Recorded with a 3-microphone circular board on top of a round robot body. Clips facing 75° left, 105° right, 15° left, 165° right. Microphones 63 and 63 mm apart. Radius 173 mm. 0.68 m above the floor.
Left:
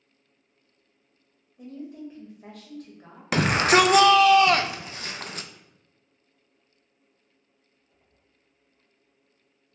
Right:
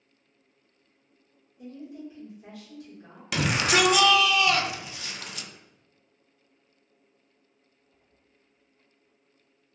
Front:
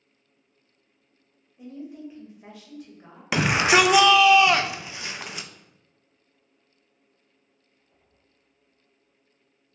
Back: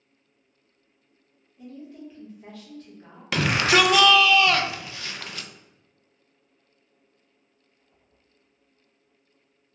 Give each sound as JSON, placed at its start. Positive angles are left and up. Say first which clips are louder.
{"t": 1.6, "sound": "a woman speaking", "louder": "left 2 dB, front 3 dB", "azimuth_deg": 90, "distance_m": 1.5}
{"t": 3.3, "sound": "a shout", "louder": "left 5 dB, front 1 dB", "azimuth_deg": 80, "distance_m": 0.5}